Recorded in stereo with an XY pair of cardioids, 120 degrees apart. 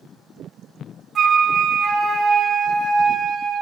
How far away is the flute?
About 1.3 m.